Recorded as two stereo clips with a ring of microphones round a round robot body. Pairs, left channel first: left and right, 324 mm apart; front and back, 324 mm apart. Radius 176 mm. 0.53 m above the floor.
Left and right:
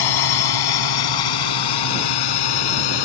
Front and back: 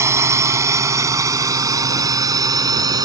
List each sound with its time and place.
0.0 s a drone: 100° left